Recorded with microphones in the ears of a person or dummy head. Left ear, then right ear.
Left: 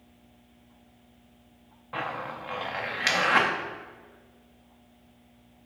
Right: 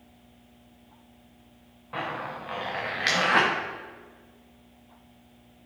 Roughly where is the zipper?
Centre.